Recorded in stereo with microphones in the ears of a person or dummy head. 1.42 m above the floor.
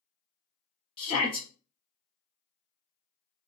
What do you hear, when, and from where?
1.0 s a shout: 30° left (ahead or behind), 0.7 m